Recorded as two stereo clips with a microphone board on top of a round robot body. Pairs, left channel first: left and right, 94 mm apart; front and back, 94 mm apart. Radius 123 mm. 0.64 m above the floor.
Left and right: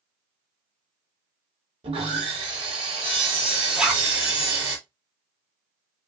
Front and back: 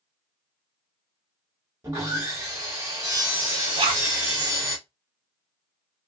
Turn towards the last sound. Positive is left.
turn(degrees=-170)